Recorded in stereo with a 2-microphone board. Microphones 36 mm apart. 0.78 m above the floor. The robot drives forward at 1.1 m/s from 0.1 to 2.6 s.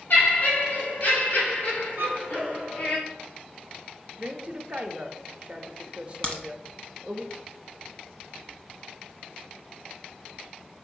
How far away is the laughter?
About 2.5 m.